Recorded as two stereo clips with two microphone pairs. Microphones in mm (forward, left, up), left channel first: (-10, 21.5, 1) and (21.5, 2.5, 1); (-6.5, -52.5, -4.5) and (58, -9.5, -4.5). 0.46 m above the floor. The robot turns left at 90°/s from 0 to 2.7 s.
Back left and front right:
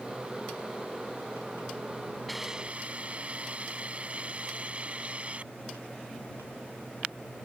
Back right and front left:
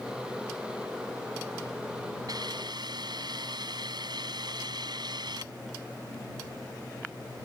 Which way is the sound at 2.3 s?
60° left.